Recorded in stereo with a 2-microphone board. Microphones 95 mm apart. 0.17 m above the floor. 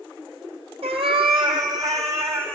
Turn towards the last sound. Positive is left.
turn(degrees=-25)  # may be behind; listen again after turning